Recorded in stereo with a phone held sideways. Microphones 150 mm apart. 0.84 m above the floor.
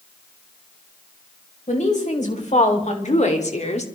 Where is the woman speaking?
55° left (ahead or behind), 3.5 m; by 3.9 s 50° left (ahead or behind), 1.9 m.